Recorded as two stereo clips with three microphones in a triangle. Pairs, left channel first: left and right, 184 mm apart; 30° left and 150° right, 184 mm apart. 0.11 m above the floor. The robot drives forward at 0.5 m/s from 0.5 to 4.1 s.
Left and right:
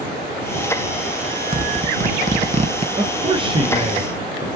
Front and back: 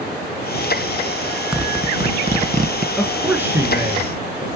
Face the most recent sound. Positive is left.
turn(degrees=-110)